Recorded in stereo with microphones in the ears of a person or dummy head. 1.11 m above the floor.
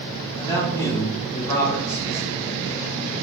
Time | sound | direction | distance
0.4 | a man speaking | 15° left (ahead or behind) | 1.7 m